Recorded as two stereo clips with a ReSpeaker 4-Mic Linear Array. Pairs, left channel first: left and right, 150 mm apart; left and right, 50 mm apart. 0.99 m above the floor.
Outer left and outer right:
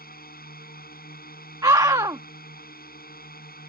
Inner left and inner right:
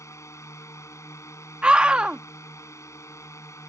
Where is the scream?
25° right (ahead or behind).